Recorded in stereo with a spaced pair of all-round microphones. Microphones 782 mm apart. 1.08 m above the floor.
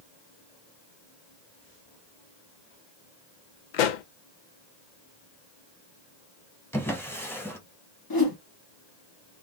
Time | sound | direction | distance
3.7 | a pop | 75° left (ahead or behind) | 0.6 m
6.7 | a drawer | 5° left (ahead or behind) | 0.6 m
8.1 | a whoosh | 30° left (ahead or behind) | 0.7 m